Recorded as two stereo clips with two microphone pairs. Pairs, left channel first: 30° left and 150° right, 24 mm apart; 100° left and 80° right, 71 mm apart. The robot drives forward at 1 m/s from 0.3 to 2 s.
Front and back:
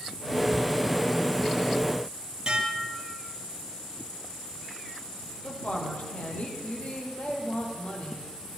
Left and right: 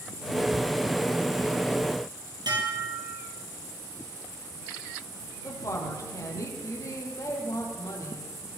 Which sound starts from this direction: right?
Dishes clattering, at 2.5 s.